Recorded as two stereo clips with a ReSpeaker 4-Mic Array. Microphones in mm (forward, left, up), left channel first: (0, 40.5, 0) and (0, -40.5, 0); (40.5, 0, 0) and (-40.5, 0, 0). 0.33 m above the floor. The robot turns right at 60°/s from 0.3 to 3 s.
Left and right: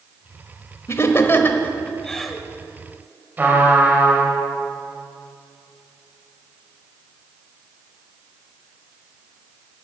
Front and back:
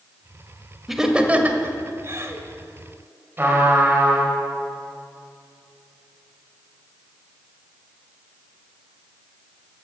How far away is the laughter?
About 1.0 m.